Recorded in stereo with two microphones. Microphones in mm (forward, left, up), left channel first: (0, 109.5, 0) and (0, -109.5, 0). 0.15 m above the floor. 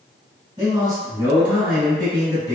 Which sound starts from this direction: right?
A man speaking, at 0.6 s.